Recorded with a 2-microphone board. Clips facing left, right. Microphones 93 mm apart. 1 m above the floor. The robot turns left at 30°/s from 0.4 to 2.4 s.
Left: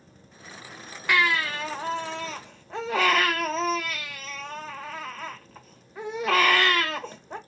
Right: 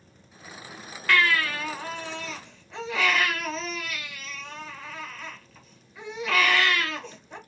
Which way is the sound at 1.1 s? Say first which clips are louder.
Even; 160° left.